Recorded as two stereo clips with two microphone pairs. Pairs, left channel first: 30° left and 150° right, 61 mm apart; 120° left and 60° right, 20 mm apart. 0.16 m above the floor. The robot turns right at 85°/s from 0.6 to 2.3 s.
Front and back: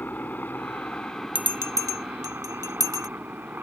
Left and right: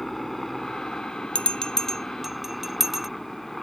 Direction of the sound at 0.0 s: 50° left.